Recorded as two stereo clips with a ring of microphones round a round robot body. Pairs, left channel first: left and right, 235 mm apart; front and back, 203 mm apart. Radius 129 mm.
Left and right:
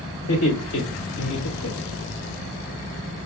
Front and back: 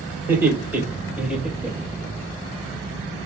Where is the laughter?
105° left, 3.5 m; by 2.1 s 85° left, 2.5 m.